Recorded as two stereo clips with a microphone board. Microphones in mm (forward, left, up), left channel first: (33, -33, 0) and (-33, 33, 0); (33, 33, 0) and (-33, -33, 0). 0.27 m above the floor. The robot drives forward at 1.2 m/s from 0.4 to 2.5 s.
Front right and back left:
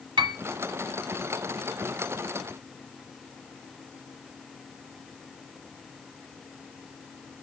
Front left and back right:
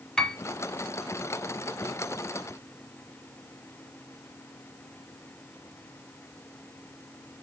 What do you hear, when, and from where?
0.2 s a piano: 125° left, 0.9 m